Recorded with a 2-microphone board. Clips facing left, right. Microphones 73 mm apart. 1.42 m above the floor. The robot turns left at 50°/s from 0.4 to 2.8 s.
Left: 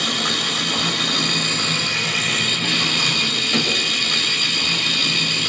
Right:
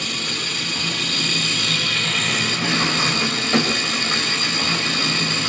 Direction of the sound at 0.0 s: 95° left.